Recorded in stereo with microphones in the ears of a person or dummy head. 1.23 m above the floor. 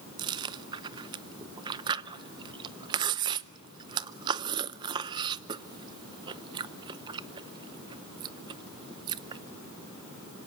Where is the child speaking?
No child speaking in this recording.